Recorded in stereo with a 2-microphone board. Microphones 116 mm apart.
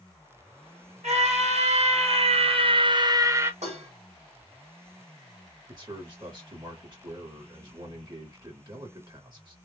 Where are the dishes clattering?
85° right, 1.5 m.